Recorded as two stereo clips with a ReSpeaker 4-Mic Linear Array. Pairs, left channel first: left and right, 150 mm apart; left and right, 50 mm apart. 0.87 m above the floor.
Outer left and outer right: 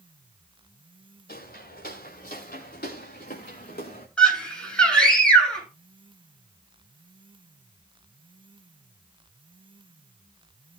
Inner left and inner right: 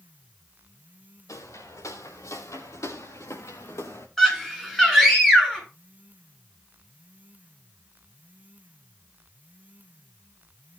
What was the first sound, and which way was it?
Footsteps, 80° left.